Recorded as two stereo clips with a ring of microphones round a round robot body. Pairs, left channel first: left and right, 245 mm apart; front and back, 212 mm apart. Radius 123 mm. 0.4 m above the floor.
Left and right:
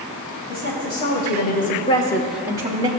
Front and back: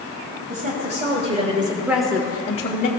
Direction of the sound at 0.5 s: 130° left.